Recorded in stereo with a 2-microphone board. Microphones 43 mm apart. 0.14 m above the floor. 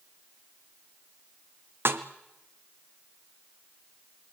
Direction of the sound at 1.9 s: 60° right (ahead or behind).